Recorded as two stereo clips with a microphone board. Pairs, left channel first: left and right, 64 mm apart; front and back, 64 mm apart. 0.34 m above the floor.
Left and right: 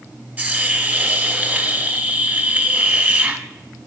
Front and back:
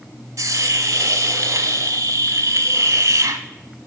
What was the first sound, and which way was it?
A hiss, 155° right.